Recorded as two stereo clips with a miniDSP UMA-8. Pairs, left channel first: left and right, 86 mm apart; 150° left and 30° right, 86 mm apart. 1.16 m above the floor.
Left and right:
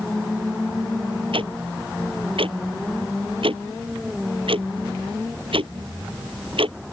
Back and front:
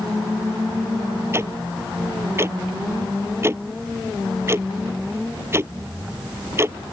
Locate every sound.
1.3 s ticking: 90° right